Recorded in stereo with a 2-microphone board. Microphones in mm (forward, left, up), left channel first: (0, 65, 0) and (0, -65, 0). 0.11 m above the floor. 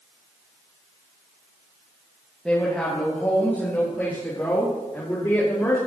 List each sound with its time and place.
2.5 s a woman speaking: 5° left (ahead or behind), 3.5 m; by 5.8 s 20° left (ahead or behind), 5 m